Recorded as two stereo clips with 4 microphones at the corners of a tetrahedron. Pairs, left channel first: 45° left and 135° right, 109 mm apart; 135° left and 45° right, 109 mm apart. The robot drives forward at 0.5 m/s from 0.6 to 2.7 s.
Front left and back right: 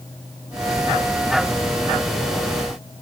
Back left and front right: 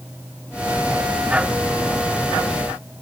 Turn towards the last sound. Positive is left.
No sound to turn to.